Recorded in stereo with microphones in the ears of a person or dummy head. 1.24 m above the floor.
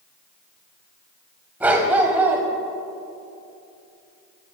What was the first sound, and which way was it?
A dog barking, 10° right (ahead or behind).